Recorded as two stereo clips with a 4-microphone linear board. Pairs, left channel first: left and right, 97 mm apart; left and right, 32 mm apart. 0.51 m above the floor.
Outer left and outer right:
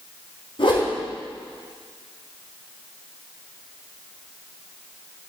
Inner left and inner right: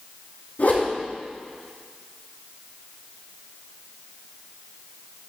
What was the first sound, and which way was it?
A whoosh, 65° left (ahead or behind).